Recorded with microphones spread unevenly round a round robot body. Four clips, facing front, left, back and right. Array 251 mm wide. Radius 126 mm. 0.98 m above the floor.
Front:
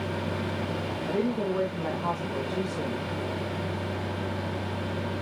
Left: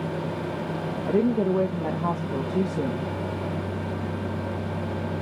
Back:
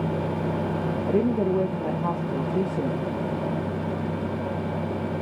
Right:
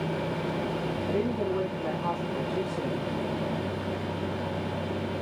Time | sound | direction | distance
1.1 | a woman speaking | 125° left | 1.3 m